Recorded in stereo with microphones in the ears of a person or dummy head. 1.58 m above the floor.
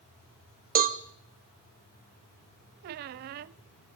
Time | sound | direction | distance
0.8 | a cowbell | 45° right (ahead or behind) | 1.1 m
2.8 | a squeak | 45° right (ahead or behind) | 0.5 m